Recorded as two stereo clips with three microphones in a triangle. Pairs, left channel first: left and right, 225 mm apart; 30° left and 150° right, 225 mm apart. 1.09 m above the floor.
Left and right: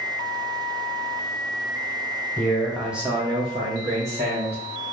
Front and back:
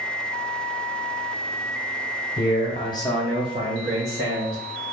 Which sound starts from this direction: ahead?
A man speaking, at 2.4 s.